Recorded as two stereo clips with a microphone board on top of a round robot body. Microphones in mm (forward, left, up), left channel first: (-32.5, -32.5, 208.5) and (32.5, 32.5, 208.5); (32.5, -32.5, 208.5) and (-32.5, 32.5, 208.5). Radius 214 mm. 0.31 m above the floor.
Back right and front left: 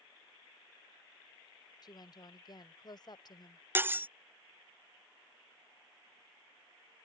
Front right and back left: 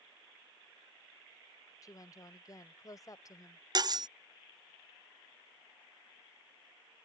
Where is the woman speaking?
95° right.